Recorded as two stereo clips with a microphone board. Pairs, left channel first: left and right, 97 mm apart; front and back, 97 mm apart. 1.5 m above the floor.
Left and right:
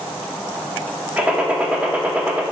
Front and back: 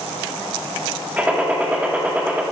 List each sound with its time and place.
1.2 s a gunshot: 140° right, 1.0 m